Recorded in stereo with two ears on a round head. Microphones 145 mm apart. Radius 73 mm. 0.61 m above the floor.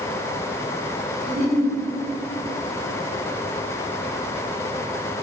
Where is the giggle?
30° right (ahead or behind), 0.8 m.